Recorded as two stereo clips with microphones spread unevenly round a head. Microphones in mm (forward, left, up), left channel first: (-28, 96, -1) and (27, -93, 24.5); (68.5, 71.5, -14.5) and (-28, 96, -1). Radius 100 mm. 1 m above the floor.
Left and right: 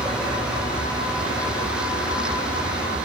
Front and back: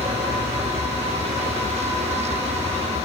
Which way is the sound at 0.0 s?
160° right.